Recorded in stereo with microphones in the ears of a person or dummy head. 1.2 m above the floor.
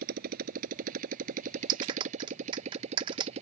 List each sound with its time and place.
0.0 s a motorcycle: 50° right (ahead or behind); by 3.4 s 35° right (ahead or behind)
1.7 s a clap: 30° right (ahead or behind)